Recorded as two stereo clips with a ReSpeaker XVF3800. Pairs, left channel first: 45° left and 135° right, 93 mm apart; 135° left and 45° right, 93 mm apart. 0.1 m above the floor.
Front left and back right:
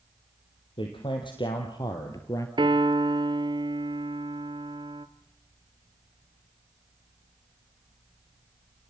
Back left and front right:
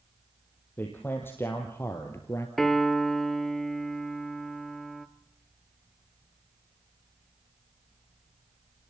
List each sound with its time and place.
0.8 s a man speaking: 65° left, 3 m; by 2.5 s 85° left, 1.6 m
2.6 s a piano: 140° right, 0.9 m